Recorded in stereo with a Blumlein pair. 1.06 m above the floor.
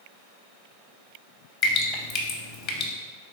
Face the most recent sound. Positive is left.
turn(degrees=35)